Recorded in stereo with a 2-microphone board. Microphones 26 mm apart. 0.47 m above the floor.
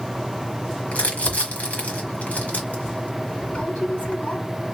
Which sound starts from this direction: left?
Crumpling, at 0.9 s.